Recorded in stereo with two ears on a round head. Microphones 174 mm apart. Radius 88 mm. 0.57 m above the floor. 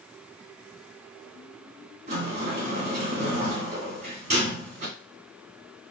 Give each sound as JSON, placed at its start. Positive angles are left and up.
{"t": 2.1, "sound": "a sliding door", "side_deg": -35, "distance_m": 1.6}